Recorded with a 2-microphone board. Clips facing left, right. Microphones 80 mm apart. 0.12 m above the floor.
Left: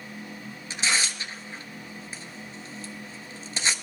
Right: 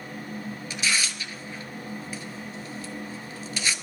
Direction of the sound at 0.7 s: 30° left (ahead or behind).